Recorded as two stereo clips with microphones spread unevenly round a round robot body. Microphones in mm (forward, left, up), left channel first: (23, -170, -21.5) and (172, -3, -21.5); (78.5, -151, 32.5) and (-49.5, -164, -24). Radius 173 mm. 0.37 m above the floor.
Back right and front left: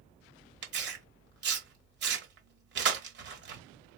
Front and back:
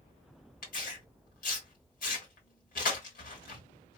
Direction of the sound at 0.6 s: 35° left.